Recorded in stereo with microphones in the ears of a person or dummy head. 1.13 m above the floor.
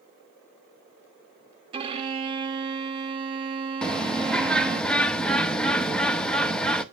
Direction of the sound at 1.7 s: 25° right (ahead or behind).